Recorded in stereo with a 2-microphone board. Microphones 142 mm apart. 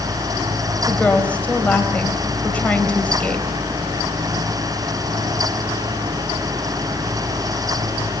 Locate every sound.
0.8 s a woman speaking: 10° left (ahead or behind), 4 m